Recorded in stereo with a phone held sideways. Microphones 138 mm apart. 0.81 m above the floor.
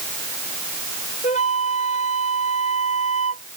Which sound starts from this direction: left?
A flute, at 1.2 s.